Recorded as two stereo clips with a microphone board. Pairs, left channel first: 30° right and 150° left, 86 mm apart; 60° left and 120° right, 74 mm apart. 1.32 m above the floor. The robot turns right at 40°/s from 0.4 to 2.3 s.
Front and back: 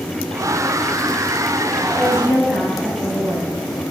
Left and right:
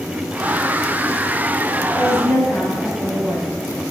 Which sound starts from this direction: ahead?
A woman speaking, at 1.9 s.